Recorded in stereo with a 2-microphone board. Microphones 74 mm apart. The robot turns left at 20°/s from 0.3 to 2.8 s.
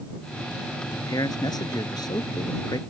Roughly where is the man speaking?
Left.